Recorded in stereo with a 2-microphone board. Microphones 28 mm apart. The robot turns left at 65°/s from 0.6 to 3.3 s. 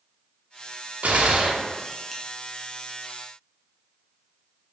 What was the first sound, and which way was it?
A gunshot, 115° right.